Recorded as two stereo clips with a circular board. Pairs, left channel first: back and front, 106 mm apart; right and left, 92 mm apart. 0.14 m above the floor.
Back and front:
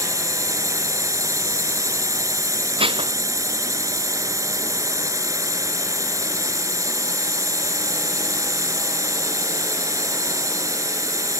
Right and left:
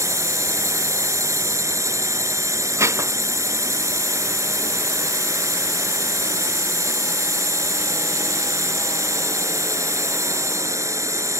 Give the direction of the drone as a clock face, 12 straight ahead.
10 o'clock.